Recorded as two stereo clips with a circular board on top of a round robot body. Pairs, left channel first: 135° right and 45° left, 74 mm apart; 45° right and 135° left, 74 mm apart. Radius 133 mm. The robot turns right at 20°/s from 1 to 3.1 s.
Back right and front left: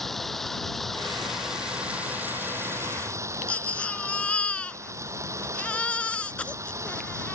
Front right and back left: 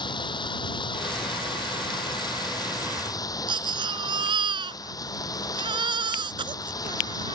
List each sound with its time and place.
0.0 s running water: 50° right; by 7.4 s 5° right
3.5 s a baby crying: 150° left